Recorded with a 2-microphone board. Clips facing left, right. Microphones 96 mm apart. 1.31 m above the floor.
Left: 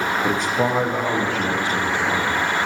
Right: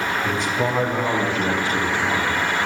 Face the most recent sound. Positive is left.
turn(degrees=-35)  # may be behind; listen again after turning